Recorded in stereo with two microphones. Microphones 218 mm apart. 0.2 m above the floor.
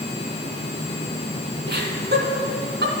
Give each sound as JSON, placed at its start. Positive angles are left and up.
{"t": 1.7, "sound": "laughter", "side_deg": -50, "distance_m": 2.5}